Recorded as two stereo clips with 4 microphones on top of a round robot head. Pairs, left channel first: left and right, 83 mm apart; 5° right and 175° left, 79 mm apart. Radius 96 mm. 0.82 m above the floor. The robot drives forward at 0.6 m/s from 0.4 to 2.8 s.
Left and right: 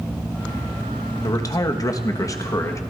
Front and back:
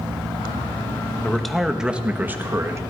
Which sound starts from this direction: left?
A man speaking, at 1.2 s.